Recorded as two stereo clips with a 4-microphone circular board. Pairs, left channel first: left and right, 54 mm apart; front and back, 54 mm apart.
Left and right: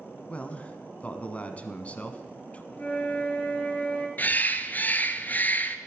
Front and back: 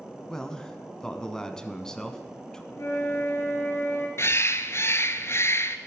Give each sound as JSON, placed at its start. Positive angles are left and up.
{"t": 0.3, "sound": "a man speaking", "azimuth_deg": 60, "distance_m": 1.1}
{"t": 2.7, "sound": "a flute", "azimuth_deg": 25, "distance_m": 2.5}
{"t": 4.2, "sound": "a bird", "azimuth_deg": 35, "distance_m": 0.7}